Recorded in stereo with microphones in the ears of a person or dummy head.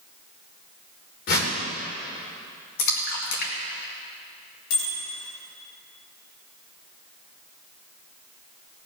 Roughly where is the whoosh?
Left.